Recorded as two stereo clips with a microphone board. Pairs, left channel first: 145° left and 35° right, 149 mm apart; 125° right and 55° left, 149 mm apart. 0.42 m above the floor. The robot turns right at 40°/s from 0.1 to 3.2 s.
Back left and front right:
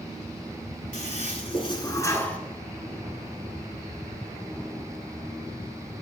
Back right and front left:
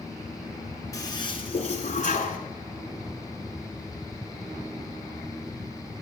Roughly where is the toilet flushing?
Behind.